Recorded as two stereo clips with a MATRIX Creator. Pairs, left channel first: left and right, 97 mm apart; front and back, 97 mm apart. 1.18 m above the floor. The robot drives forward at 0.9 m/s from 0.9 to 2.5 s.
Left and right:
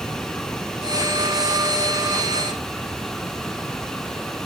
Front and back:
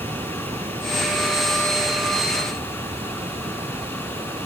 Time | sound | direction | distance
0.0 | running water | 175° left | ?